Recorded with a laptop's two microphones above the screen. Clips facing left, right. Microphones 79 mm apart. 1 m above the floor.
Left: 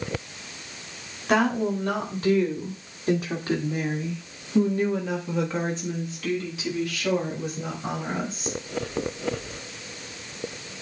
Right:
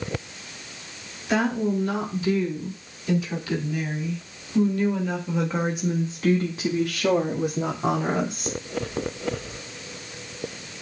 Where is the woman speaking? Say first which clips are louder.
Left 1 dB; 55° left (ahead or behind), 3.5 m; by 8.6 s 75° right (ahead or behind), 2.5 m.